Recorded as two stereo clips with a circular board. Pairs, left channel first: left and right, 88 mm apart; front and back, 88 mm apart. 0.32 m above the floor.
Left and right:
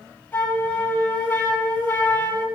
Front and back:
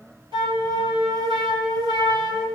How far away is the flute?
About 4.5 m.